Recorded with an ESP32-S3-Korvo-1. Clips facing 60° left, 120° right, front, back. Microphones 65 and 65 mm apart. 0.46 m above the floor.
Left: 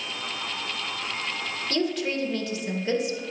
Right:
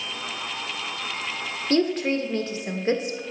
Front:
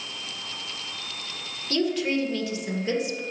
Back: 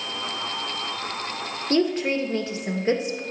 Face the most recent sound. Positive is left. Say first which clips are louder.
# right 5 dB, back 3 dB
turn(degrees=-150)